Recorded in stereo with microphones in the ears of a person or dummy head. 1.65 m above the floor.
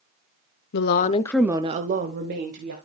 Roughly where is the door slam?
I don't hear a door slam.